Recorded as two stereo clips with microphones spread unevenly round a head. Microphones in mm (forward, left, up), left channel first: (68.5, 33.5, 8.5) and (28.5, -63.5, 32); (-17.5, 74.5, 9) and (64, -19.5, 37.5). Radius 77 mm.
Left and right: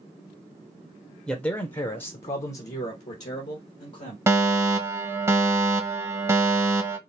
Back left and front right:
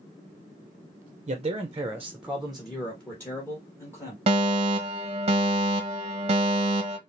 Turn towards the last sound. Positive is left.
turn(degrees=-50)